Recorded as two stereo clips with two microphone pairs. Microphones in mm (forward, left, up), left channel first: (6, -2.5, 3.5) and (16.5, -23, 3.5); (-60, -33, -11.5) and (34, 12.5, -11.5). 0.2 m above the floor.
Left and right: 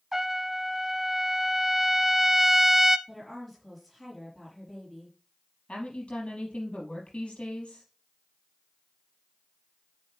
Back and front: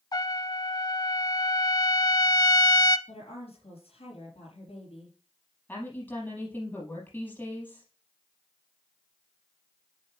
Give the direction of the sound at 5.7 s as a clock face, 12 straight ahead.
8 o'clock.